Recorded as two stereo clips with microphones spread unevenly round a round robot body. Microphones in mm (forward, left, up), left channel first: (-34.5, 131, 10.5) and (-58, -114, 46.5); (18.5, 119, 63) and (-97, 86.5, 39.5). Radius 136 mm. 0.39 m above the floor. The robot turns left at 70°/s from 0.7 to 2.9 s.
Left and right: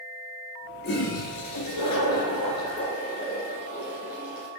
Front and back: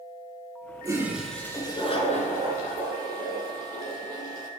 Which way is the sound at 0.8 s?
135° left.